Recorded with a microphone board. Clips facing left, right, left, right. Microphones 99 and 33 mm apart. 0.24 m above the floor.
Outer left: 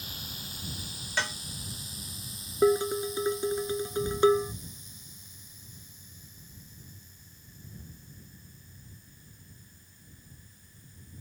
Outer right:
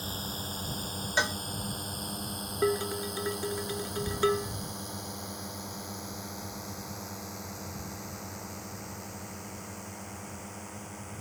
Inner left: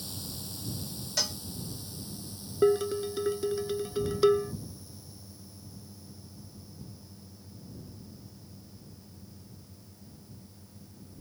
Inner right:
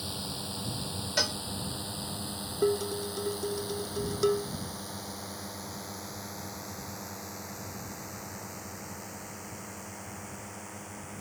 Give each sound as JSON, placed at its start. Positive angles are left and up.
{"t": 0.0, "sound": "a drone", "side_deg": -40}
{"t": 1.2, "sound": "a cowbell", "side_deg": -20}
{"t": 2.6, "sound": "dishes clattering", "side_deg": 20}